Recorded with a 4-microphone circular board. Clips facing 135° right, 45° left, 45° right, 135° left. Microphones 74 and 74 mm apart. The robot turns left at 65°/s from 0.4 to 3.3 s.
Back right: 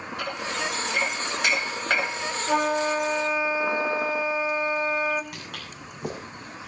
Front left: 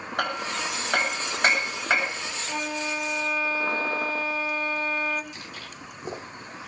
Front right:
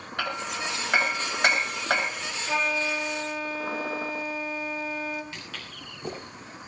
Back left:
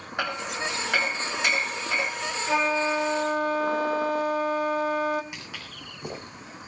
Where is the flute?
150° right, 1.4 m; by 5.2 s 155° left, 1.4 m.